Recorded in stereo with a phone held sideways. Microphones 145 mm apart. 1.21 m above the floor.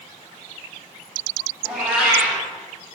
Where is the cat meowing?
5° right (ahead or behind), 2.5 m.